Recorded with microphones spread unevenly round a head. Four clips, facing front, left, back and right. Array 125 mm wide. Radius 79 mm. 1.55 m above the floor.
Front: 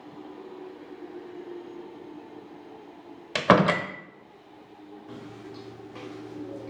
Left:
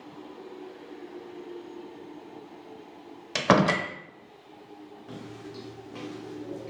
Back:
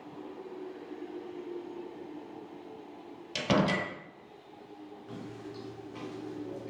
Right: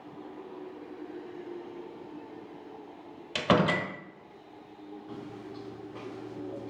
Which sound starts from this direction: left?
Footsteps, at 5.1 s.